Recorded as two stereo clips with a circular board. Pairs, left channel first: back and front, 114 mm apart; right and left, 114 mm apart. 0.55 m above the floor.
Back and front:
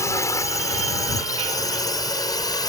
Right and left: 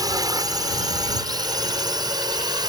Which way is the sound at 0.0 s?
130° left.